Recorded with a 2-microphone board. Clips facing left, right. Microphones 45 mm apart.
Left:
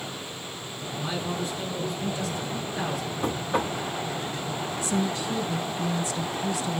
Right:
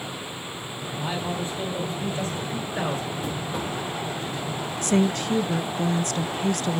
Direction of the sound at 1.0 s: 30° right (ahead or behind).